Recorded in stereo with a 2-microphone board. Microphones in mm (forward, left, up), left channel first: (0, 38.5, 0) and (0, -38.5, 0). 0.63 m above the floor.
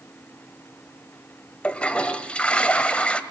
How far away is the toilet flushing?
About 1.6 m.